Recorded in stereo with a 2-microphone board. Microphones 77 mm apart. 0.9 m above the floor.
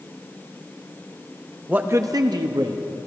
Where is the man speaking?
15° right (ahead or behind), 0.8 m; by 3.1 s 55° right (ahead or behind), 1.8 m.